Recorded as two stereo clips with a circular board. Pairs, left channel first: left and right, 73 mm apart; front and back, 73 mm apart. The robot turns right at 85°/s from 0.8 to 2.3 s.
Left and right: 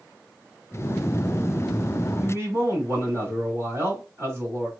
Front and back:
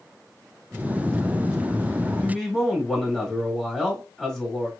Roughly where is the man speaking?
Right.